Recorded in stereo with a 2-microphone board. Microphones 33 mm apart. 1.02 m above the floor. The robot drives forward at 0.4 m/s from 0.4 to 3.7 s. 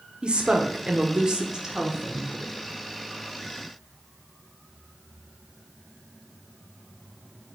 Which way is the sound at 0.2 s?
30° right (ahead or behind).